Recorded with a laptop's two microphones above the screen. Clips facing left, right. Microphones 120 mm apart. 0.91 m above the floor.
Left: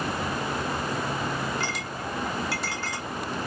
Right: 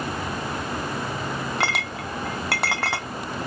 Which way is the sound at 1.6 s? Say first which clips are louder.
Right 4 dB; 70° right (ahead or behind).